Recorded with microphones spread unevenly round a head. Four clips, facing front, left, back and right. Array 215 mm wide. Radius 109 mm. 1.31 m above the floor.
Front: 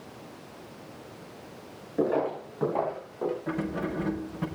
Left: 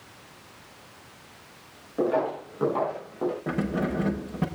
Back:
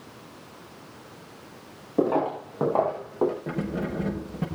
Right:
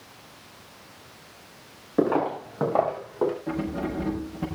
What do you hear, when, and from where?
2.0 s footsteps: 150° right, 6.5 m; by 3.3 s 165° right, 6 m
3.5 s keys jangling: 120° left, 5.5 m